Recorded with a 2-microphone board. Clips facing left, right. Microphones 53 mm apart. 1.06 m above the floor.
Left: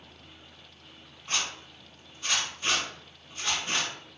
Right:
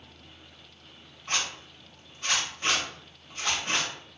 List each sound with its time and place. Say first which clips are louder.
1.3 s a zipper: right 1 dB; 50° right (ahead or behind), 1.7 m